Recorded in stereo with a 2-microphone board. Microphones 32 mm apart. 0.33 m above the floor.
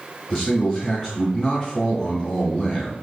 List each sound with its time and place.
0.3 s a man speaking: 5° left (ahead or behind), 3 m